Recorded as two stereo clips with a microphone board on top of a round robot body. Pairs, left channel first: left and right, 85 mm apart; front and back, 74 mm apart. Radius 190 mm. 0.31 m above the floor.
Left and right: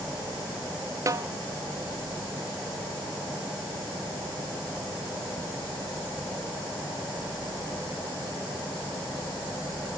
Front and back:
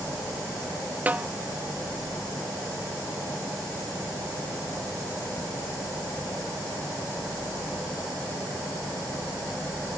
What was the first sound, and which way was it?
A snare drum, 120° right.